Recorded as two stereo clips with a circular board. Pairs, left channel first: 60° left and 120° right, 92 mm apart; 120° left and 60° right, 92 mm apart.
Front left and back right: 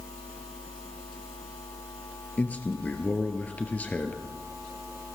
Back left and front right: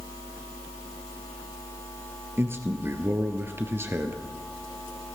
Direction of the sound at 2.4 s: 5° right.